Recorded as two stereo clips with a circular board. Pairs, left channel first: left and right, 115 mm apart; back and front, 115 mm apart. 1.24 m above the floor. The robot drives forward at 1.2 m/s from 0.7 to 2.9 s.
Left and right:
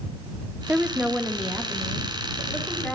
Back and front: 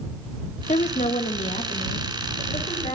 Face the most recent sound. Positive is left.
turn(degrees=-175)